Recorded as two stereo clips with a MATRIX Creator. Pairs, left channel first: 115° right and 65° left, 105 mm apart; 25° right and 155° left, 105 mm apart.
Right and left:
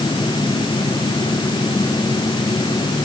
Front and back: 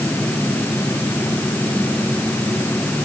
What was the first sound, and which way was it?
Only background noise.